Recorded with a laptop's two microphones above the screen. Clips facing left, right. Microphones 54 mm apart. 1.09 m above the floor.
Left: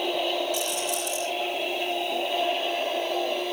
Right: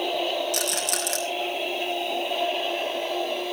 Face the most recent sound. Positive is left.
turn(degrees=-80)